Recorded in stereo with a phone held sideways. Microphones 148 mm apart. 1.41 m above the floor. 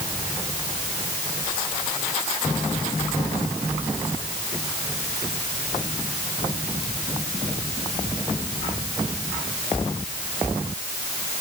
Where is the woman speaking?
I don't hear a woman speaking.